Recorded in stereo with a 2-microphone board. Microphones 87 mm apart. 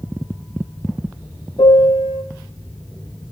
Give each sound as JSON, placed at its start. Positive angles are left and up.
{"t": 1.6, "sound": "a piano", "side_deg": 70, "distance_m": 0.9}